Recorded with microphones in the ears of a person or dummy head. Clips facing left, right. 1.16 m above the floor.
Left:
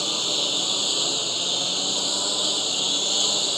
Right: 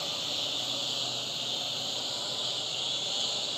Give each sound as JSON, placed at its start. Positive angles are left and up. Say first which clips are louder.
{"t": 0.0, "sound": "a lawn mower", "louder": "left 9 dB", "side_deg": 60}